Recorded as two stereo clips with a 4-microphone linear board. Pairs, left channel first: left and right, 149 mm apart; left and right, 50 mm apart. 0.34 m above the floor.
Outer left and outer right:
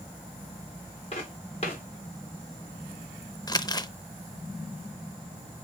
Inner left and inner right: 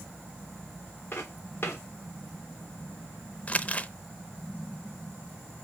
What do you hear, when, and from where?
1.1 s footsteps: 45° left (ahead or behind), 4.5 m
3.5 s crumpling: 25° left (ahead or behind), 0.5 m